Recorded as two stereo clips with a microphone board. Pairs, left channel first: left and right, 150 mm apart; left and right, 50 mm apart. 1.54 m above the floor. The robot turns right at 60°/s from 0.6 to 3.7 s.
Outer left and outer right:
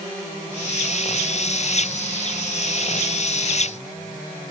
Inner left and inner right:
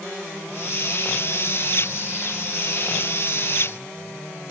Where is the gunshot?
No gunshot in this recording.